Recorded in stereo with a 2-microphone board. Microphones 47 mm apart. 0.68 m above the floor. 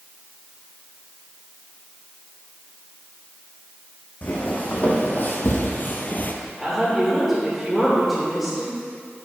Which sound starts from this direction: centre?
A woman speaking, at 6.6 s.